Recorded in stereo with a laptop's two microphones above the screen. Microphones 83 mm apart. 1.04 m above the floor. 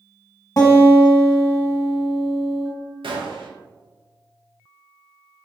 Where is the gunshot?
85° right, 0.5 m.